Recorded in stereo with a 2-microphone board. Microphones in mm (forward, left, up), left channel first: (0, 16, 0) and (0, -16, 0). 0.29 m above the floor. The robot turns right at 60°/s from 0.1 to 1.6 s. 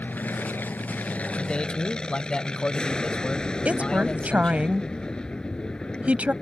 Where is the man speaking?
35° left (ahead or behind); by 4.7 s 30° left (ahead or behind).